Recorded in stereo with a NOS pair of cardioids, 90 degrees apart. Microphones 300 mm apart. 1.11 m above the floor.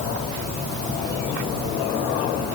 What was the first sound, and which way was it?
Only background noise.